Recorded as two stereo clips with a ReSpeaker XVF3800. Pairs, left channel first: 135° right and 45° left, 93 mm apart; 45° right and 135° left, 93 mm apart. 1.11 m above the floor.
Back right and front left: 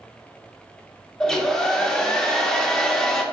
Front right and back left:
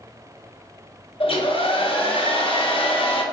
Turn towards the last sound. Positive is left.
turn(degrees=-50)